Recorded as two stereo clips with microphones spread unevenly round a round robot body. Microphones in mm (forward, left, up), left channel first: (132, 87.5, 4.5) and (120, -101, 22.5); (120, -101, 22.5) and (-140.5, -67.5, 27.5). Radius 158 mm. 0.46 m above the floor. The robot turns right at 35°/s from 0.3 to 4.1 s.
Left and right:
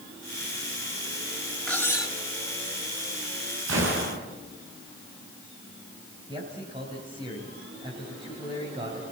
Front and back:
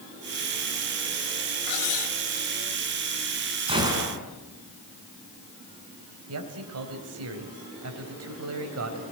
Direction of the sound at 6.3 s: 170° right.